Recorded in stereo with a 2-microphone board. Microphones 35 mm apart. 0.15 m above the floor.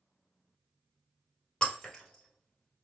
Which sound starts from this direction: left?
Breaking glass, at 1.6 s.